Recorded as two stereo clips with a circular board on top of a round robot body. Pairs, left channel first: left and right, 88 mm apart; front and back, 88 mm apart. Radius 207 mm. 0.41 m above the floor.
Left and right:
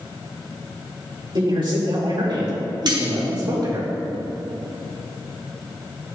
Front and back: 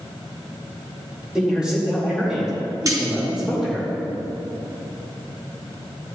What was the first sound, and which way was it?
A man speaking, 100° right.